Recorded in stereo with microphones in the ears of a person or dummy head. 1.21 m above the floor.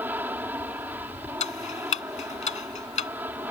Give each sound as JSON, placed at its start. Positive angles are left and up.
{"t": 0.0, "sound": "an aircraft", "side_deg": -5}
{"t": 1.4, "sound": "ticking", "side_deg": 30}